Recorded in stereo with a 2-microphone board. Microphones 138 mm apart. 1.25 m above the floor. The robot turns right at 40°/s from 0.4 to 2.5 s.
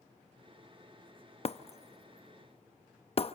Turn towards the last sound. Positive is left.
turn(degrees=45)  # may be behind; listen again after turning